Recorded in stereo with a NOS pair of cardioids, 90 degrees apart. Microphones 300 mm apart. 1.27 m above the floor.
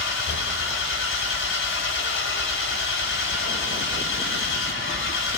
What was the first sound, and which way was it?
An engine running, 45° left.